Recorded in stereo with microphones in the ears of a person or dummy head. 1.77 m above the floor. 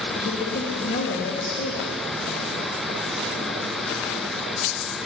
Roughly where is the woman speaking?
Left.